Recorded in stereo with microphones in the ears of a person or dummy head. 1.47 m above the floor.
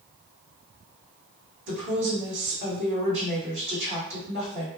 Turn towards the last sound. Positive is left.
turn(degrees=-65)  # may be behind; listen again after turning